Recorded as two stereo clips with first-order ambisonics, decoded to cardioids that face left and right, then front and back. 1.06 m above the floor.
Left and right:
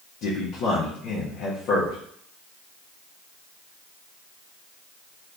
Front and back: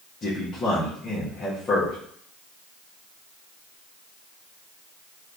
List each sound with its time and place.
0.2 s a man speaking: 65° left, 0.7 m